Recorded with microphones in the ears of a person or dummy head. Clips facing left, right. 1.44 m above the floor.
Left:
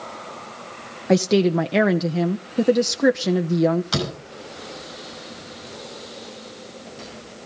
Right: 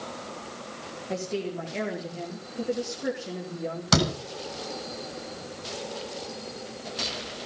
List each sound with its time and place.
1.1 s a woman speaking: 75° left (ahead or behind), 0.8 m
3.9 s a door slam: 60° right (ahead or behind), 6.5 m